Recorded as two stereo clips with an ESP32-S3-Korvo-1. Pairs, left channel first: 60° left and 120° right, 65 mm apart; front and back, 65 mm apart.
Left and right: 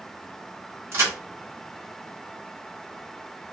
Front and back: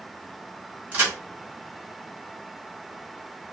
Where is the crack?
120° right, 1.9 m.